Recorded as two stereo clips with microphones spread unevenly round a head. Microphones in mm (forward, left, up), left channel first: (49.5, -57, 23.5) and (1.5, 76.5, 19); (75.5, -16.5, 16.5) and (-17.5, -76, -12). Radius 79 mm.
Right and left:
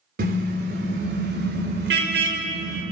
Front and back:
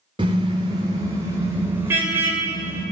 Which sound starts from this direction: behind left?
A car horn, at 0.2 s.